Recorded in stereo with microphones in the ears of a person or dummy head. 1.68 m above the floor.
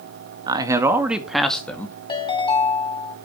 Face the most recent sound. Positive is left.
turn(degrees=25)  # may be behind; listen again after turning